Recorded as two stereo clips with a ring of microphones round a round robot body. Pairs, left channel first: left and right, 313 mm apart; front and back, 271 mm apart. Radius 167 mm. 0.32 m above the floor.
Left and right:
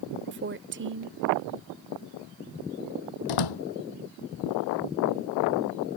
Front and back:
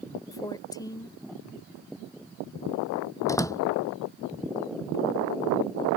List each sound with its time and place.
0.3 s a woman speaking: 70° right
3.3 s a door slam: 80° left